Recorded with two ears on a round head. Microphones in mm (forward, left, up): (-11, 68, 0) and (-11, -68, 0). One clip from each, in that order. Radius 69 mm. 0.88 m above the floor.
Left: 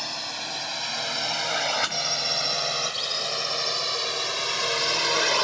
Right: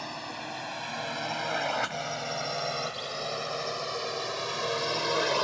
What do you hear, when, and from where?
0.0 s a drone: 75° left (ahead or behind); by 5.4 s 60° left (ahead or behind)